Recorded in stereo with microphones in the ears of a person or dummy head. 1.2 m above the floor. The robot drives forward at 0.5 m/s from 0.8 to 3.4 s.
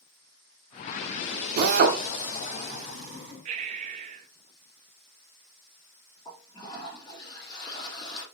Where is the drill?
55° right (ahead or behind), 1.1 m; by 2.0 s 50° right (ahead or behind), 1.2 m.